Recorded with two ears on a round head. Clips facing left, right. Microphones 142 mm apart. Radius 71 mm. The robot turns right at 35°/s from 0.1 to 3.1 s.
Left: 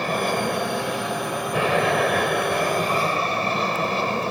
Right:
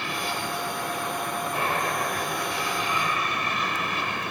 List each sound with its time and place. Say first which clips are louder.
0.0 s an aircraft: left 8 dB; 40° left; by 4.3 s 145° left